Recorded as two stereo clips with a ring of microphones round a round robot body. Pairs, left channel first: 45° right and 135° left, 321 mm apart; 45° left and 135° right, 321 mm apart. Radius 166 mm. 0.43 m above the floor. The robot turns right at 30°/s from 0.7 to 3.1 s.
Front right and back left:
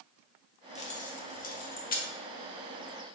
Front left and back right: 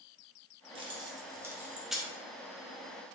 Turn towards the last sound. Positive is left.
turn(degrees=-15)